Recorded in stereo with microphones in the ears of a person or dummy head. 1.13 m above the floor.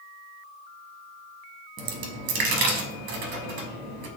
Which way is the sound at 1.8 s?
55° right (ahead or behind).